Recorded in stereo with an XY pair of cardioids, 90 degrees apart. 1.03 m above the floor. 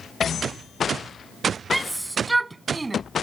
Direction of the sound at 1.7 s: 15° right.